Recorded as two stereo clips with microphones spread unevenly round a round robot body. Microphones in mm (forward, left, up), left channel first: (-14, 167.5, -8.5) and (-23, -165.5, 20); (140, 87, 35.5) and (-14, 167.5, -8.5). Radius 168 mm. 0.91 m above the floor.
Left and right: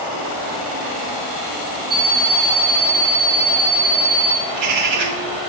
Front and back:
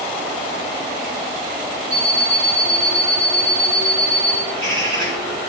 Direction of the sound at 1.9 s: 140° right.